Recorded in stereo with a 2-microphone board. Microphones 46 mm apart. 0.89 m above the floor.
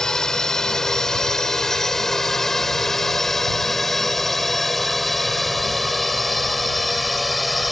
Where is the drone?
15° left (ahead or behind); by 7.7 s centre (ahead or behind).